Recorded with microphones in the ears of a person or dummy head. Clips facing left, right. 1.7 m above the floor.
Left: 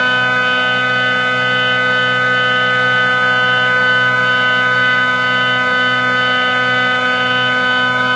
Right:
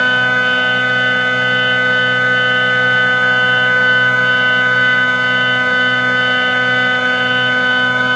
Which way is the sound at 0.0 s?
Centre (ahead or behind).